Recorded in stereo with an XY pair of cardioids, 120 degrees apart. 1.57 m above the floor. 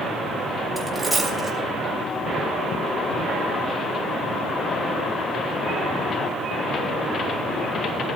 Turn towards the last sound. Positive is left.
turn(degrees=0)